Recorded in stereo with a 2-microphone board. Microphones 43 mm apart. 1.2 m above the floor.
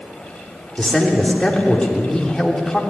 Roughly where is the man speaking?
Centre.